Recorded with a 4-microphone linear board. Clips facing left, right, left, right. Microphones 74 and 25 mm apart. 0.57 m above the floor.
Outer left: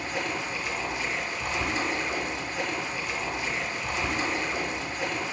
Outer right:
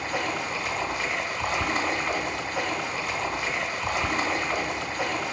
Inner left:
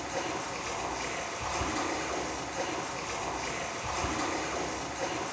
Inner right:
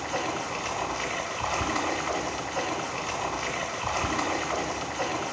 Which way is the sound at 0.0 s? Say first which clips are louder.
Outer right 2 dB, inner right 4 dB; 75° right (ahead or behind).